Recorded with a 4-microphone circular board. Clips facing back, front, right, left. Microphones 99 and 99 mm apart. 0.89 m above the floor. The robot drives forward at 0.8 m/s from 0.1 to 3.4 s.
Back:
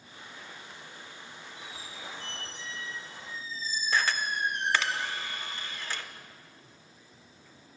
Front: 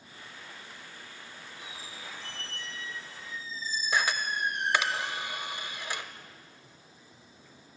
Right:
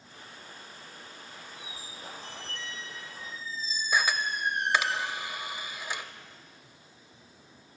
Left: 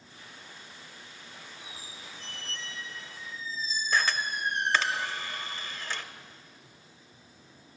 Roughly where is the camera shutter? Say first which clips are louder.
Back 1 dB, right 1 dB; ahead right.